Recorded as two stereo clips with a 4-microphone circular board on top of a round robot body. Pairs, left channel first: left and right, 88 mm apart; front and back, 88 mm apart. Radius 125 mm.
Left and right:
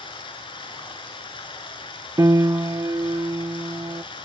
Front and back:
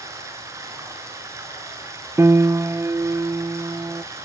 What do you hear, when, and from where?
0.0 s running water: 120° left, 7.5 m
2.2 s a piano: 130° right, 0.7 m